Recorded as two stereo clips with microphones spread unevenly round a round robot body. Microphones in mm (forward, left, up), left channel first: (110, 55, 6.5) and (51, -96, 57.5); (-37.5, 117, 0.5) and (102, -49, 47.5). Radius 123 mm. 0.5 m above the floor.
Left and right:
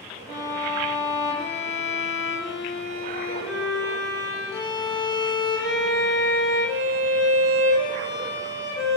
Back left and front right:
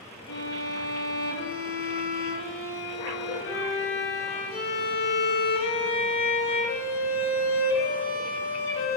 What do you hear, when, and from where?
0.3 s a violin: 155° left, 0.8 m